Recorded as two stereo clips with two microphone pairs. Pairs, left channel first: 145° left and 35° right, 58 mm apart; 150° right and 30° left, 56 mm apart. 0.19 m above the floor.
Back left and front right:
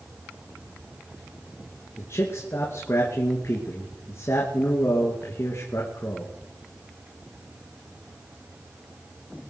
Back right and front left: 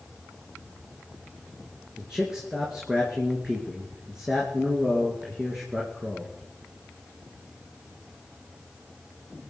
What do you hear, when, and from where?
2.0 s a man speaking: 110° left, 2.5 m